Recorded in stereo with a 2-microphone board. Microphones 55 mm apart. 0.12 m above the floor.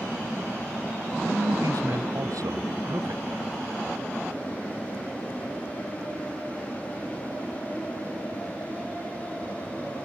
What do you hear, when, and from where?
1.3 s a man speaking: 80° right; by 3.5 s 75° right (ahead or behind)